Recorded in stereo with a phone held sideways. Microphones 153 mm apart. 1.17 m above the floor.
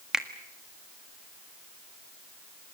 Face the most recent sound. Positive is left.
turn(degrees=-5)  # may be behind; listen again after turning